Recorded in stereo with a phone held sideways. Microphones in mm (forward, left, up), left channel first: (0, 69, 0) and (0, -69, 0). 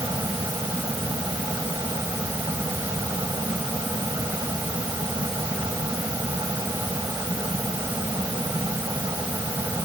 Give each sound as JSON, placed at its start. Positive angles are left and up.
{"t": 0.0, "sound": "a fan", "side_deg": -25}